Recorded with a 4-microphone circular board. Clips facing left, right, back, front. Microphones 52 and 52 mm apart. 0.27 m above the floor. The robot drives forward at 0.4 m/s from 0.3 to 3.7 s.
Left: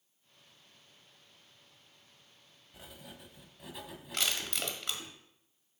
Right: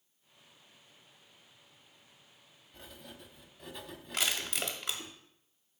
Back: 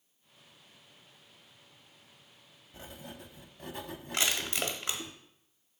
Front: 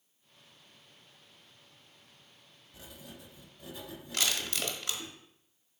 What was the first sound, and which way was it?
Writing, 170° left.